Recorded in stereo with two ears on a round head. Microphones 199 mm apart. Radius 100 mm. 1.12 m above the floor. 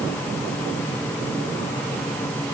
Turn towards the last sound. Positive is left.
No sound to turn to.